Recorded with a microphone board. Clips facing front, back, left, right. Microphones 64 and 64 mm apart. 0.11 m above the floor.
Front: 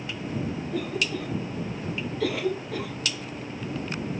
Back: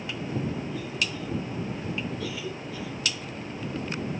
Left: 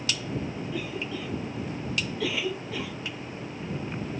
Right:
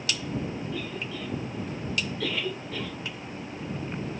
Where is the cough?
10° left.